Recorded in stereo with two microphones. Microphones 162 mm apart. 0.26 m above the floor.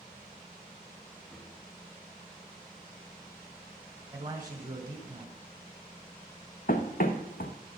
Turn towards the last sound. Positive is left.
turn(degrees=65)  # may be behind; listen again after turning